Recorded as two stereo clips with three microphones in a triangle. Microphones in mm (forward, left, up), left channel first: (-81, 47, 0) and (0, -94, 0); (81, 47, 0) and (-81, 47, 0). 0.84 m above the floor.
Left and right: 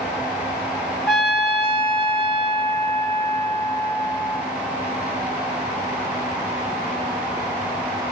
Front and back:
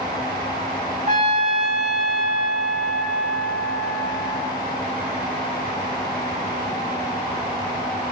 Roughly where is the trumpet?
Behind right.